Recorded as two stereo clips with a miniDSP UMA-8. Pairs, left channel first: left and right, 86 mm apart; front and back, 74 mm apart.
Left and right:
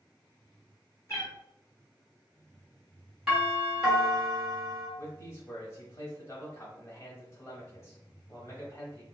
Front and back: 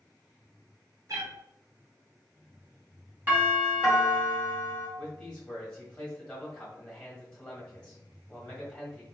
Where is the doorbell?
Straight behind, 2.0 m.